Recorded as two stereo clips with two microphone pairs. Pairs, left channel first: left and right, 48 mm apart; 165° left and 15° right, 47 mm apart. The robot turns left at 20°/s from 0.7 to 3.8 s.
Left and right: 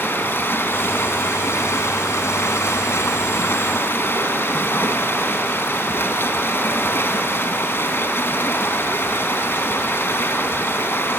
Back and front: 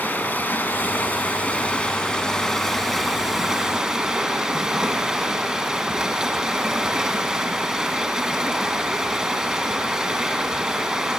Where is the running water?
120° left, 2 m; by 11.2 s 60° left, 2 m.